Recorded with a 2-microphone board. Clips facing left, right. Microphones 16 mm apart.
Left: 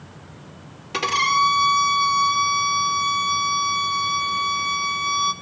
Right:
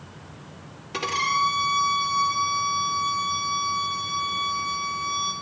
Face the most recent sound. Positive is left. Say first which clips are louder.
# left 5 dB
turn(degrees=25)  # may be behind; listen again after turning